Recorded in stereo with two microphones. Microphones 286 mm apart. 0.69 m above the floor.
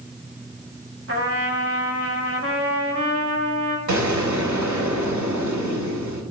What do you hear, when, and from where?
1.1 s a trumpet: 50° right (ahead or behind), 1.4 m
3.9 s an explosion: 80° right, 1.4 m